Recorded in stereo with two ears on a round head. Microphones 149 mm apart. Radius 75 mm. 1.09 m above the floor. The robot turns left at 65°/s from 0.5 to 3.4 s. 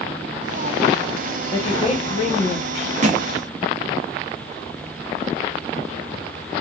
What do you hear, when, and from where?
1.5 s a woman speaking: 145° left, 0.8 m; by 2.9 s 55° left, 0.8 m
3.0 s a thud: 45° right (ahead or behind), 0.5 m; by 3.3 s 50° right (ahead or behind), 0.5 m